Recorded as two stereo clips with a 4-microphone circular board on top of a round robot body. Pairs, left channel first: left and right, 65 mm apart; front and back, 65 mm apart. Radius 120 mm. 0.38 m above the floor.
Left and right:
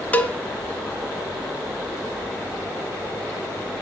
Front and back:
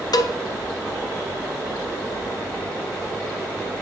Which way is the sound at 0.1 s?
20° left.